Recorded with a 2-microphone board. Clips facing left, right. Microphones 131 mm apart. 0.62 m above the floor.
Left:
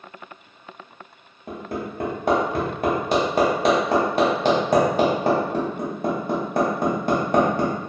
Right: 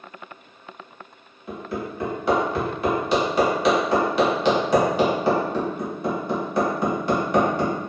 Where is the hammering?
45° left (ahead or behind), 0.9 m.